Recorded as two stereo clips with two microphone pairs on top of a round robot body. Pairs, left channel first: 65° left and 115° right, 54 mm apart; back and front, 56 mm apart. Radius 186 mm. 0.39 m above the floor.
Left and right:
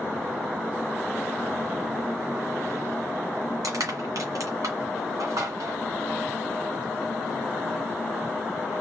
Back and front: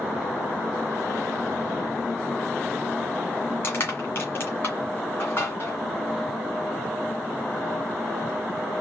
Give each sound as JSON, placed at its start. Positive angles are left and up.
{"t": 3.6, "sound": "crushing", "azimuth_deg": -135, "distance_m": 2.5}